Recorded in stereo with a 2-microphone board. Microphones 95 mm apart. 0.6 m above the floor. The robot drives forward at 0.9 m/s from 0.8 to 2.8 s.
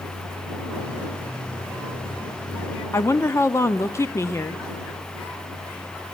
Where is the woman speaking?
30° left (ahead or behind), 0.8 m.